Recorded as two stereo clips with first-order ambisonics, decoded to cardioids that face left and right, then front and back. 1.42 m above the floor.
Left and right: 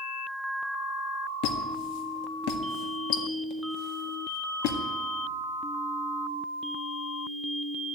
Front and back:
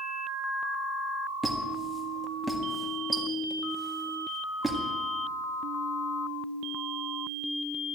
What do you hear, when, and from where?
1.4 s a squeak: 95° left, 1.7 m